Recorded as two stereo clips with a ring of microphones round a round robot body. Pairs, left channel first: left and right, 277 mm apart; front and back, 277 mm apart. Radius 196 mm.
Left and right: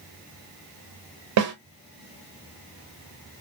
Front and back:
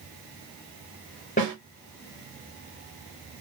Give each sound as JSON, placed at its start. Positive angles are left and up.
{"t": 1.4, "sound": "a snare drum", "azimuth_deg": -70, "distance_m": 1.8}